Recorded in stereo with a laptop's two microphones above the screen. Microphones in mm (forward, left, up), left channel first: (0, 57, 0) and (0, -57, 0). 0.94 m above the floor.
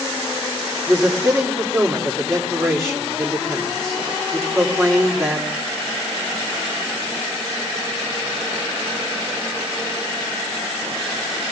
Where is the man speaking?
Centre (ahead or behind), 3.5 m.